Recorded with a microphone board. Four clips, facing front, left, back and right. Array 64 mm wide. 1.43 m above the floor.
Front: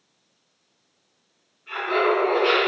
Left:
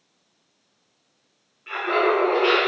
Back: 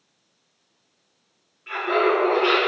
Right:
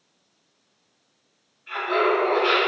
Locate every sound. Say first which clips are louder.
1.7 s laughter: left 1 dB, back 1 dB; 120° left, 0.9 m